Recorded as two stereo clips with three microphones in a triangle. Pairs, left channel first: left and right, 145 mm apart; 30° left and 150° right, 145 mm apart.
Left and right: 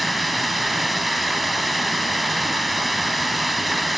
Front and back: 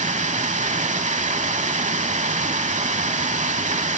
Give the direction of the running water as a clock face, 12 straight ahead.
6 o'clock.